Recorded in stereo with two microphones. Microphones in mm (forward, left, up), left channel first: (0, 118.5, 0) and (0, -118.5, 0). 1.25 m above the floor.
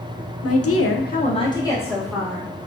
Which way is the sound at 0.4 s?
85° left.